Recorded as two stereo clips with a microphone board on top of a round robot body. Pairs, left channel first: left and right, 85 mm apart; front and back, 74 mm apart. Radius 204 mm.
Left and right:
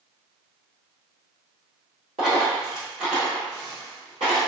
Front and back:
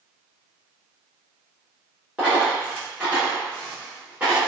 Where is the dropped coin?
105° right, 1.0 m.